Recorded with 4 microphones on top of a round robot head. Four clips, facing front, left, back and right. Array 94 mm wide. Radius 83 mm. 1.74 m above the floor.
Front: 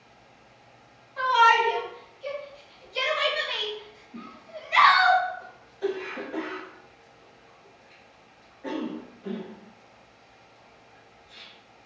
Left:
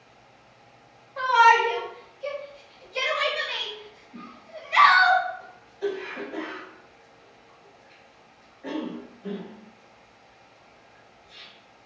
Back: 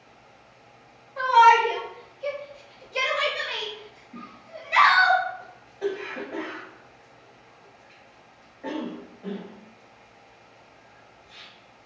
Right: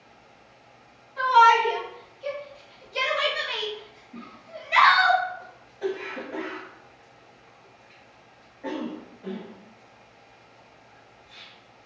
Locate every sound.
1.2 s a shout: 125° left, 1.0 m; by 5.1 s 120° right, 1.4 m
4.1 s a cough: 150° right, 0.9 m